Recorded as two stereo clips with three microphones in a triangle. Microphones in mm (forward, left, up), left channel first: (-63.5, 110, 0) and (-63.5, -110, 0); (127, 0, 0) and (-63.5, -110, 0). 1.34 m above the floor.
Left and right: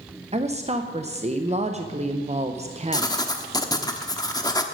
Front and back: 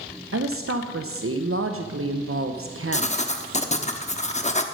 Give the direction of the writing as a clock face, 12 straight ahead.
11 o'clock.